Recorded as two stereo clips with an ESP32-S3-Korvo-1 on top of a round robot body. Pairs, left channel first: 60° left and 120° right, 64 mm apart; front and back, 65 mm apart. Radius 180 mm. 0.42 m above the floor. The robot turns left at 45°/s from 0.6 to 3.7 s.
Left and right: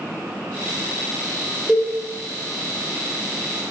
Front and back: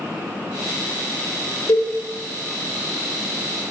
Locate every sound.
1.7 s a cowbell: 40° right, 2.5 m; by 1.9 s 50° right, 2.5 m